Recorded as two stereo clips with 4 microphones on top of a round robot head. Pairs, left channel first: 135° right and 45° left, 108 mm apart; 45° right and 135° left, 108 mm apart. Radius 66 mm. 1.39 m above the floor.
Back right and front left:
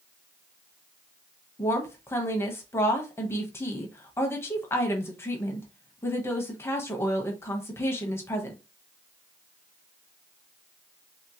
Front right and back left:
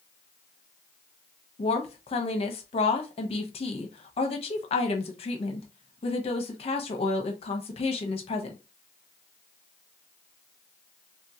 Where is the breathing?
No breathing in this recording.